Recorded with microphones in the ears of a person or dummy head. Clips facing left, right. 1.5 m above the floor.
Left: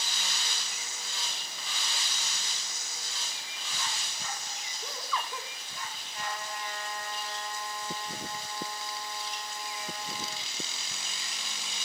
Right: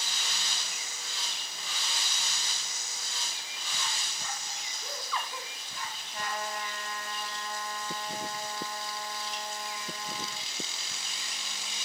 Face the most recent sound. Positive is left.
turn(degrees=-50)  # may be behind; listen again after turning